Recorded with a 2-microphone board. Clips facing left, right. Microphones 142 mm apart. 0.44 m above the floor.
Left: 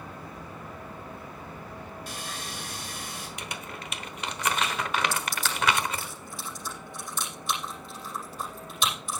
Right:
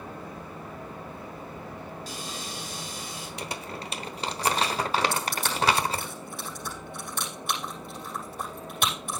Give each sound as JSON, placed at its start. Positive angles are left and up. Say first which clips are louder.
{"t": 2.1, "sound": "sawing", "louder": "right 1 dB", "side_deg": 55, "distance_m": 5.0}
{"t": 3.4, "sound": "crumpling", "louder": "right 3 dB", "side_deg": -30, "distance_m": 1.0}
{"t": 5.1, "sound": "crushing", "louder": "right 2 dB", "side_deg": -55, "distance_m": 7.5}